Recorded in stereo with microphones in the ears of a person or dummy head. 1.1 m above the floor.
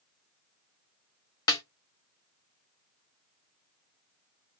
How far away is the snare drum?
About 1.2 m.